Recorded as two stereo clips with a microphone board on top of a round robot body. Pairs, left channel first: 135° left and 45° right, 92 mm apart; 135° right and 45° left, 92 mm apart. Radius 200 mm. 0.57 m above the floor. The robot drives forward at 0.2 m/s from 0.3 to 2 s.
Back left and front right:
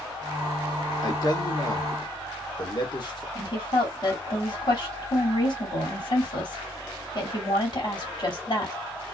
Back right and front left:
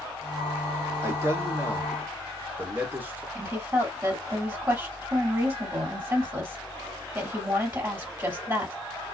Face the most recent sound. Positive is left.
turn(degrees=110)